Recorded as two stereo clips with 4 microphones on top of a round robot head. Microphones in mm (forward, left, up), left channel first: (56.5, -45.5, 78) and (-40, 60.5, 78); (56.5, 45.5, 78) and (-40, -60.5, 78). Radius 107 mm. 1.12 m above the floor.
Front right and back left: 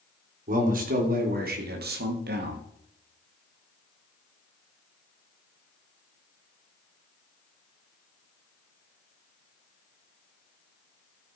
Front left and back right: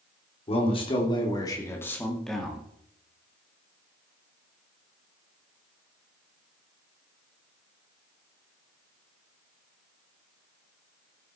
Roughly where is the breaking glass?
No breaking glass in this recording.